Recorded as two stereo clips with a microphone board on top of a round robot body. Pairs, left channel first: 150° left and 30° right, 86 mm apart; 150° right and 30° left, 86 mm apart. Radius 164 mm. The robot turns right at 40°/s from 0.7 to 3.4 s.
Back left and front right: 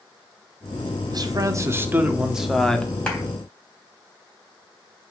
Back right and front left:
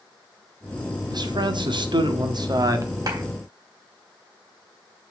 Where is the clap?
70° left, 3.5 m; by 3.2 s 75° left, 3.5 m.